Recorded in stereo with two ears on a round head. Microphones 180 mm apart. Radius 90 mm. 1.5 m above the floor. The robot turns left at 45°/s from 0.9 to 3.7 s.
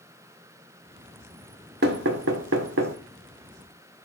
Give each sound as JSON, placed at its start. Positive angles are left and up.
{"t": 1.8, "sound": "knocking", "side_deg": -50, "distance_m": 0.8}